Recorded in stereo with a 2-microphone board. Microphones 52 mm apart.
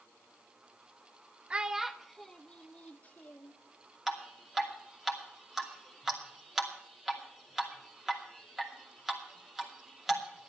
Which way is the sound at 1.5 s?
20° right (ahead or behind).